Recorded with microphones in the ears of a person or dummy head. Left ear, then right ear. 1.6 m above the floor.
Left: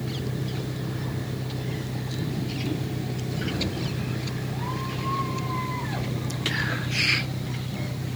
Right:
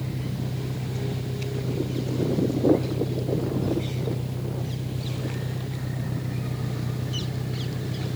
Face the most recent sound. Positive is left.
turn(degrees=-80)